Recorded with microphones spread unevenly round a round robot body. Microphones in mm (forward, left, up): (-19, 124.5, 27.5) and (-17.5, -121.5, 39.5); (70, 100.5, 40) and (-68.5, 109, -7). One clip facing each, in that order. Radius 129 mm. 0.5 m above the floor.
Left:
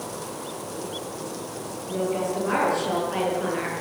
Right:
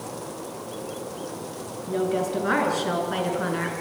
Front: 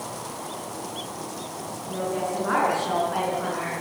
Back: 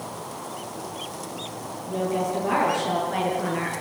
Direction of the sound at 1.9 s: 105° right.